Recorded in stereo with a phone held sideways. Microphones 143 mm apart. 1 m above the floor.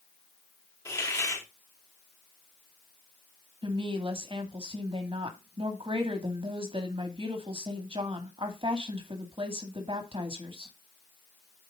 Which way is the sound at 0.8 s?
20° left (ahead or behind).